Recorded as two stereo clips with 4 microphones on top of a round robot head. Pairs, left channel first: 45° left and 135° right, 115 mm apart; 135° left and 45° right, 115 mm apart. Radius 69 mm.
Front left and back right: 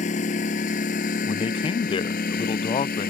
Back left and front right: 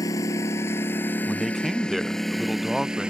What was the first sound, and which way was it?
A lawn mower, 70° left.